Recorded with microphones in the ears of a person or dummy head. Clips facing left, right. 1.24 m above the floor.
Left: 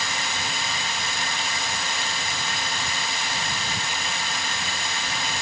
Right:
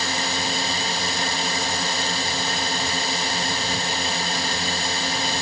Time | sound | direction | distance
0.0 | a drone | 30° right (ahead or behind) | ?